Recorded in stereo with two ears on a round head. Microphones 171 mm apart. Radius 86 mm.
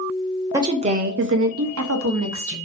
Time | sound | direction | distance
0.5 | a woman speaking | 15° right (ahead or behind) | 0.7 m